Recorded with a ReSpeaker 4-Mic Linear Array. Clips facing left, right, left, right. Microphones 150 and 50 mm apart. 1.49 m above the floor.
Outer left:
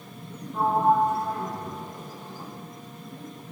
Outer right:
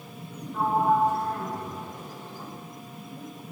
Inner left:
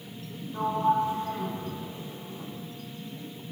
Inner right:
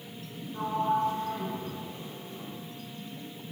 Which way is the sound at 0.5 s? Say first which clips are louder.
Outer left 1 dB, inner left 3 dB; 15° left (ahead or behind).